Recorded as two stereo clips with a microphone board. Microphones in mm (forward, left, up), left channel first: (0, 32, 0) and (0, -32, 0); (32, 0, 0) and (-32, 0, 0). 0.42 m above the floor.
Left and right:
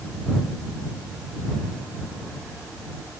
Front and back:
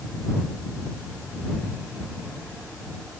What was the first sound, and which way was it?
Only background noise.